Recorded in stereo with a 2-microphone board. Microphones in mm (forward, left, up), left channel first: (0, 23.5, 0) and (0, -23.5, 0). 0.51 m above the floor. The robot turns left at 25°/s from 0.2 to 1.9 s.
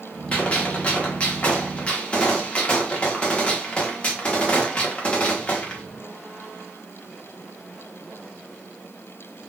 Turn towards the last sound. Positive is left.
turn(degrees=25)  # may be behind; listen again after turning